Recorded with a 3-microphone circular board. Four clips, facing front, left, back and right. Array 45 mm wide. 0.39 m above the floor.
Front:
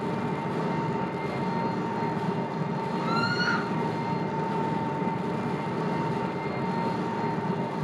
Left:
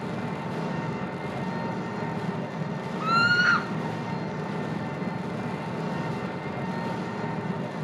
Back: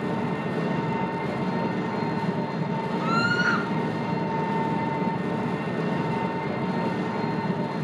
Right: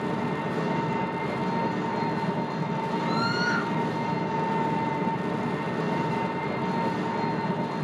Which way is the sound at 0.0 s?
145° right.